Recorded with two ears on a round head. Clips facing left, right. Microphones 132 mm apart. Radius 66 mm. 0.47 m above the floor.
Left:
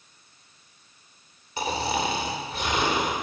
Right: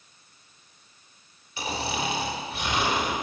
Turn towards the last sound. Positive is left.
turn(degrees=35)  # may be behind; listen again after turning